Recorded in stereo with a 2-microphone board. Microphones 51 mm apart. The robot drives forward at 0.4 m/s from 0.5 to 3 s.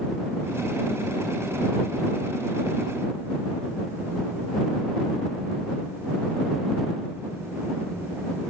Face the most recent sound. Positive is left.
No sound to turn to.